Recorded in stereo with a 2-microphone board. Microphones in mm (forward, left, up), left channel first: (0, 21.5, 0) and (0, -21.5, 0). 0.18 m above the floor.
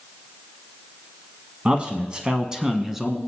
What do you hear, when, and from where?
1.6 s a man speaking: 30° right (ahead or behind), 1.1 m; by 3.2 s 5° right (ahead or behind), 1.5 m